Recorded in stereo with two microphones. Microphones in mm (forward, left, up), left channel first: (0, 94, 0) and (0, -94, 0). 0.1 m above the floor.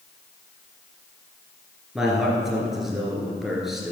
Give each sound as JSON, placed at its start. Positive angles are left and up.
{"t": 1.9, "sound": "a man speaking", "side_deg": 0, "distance_m": 2.0}